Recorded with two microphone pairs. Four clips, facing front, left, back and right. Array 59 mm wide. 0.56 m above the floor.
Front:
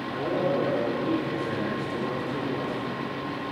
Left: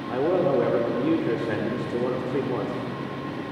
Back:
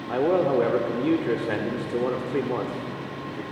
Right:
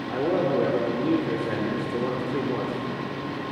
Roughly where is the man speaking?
Behind.